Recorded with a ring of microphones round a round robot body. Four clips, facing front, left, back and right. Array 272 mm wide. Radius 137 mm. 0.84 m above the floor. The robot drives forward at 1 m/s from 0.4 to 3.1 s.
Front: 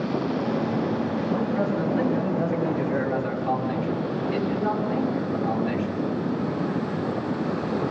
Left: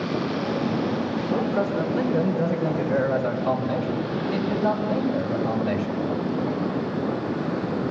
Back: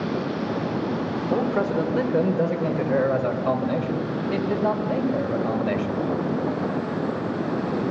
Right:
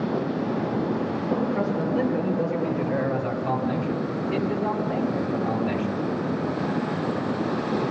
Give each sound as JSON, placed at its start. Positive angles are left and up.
{"t": 1.3, "sound": "a man speaking", "azimuth_deg": 175, "distance_m": 3.0}